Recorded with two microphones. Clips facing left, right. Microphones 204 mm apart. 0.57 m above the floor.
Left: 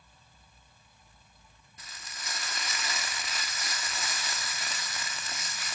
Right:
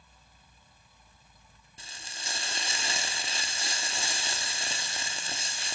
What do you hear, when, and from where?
1.8 s frying: 30° right (ahead or behind), 1.0 m